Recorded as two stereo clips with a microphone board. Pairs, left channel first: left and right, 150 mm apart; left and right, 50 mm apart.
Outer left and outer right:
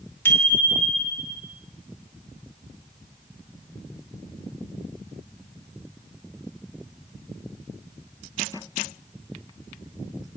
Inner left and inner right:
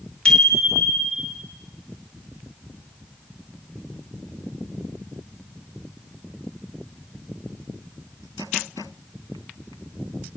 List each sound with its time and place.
0.2 s a bicycle bell: 15° left (ahead or behind), 4 m; by 1.4 s 10° left (ahead or behind), 5 m